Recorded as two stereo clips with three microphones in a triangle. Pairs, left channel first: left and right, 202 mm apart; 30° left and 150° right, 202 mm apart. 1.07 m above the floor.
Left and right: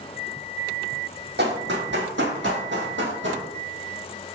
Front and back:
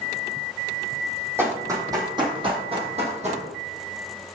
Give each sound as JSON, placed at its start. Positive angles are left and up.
{"t": 1.4, "sound": "running footsteps", "azimuth_deg": -75, "distance_m": 2.5}